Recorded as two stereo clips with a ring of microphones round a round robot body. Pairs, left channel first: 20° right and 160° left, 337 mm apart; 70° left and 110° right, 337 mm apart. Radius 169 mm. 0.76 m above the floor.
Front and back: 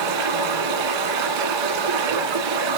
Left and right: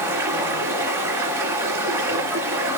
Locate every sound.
0.0 s running water: 165° left, 2 m